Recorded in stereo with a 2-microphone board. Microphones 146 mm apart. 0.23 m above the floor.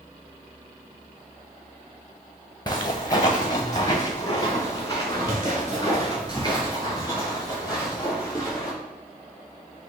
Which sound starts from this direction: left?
Footsteps, at 2.7 s.